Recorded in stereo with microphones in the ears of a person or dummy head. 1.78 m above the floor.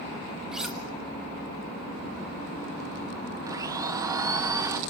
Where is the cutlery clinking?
Centre (ahead or behind), 1.2 m.